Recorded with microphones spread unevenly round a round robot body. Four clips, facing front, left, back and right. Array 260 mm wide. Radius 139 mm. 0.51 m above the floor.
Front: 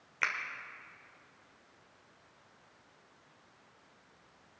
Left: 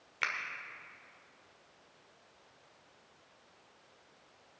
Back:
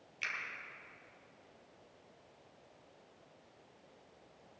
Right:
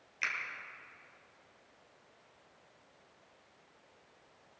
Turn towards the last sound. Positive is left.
turn(degrees=30)